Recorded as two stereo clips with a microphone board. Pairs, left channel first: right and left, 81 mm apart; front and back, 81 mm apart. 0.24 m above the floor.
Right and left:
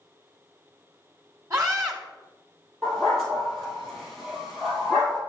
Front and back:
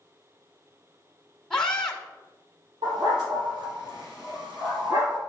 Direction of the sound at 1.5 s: 80° left.